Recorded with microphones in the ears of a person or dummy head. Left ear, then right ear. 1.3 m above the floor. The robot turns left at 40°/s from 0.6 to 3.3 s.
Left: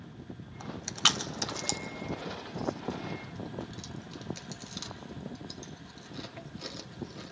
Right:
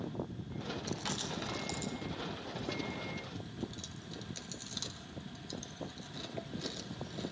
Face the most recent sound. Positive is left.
turn(degrees=30)  # may be behind; listen again after turning